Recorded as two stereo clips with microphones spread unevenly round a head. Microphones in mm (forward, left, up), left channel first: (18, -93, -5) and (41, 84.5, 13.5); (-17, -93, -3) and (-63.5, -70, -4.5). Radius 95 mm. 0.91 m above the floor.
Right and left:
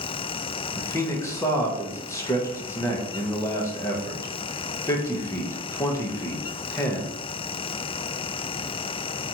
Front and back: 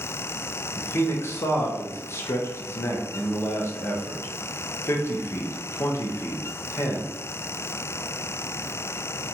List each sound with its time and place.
0.8 s a man speaking: 35° right, 0.6 m